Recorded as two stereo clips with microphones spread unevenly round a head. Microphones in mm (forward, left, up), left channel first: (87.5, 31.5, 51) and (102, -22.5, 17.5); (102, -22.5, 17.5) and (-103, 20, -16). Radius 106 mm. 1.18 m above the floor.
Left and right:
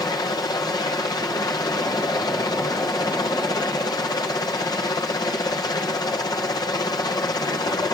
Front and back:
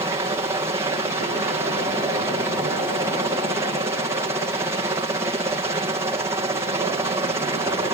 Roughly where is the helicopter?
Left.